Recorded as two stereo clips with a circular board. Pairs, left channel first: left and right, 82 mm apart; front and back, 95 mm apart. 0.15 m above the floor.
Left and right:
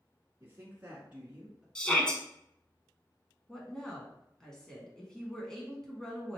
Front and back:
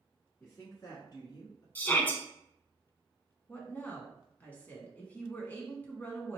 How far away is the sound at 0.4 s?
About 1.3 m.